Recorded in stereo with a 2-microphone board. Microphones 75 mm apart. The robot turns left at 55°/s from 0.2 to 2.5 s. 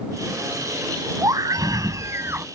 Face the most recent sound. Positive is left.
turn(degrees=-145)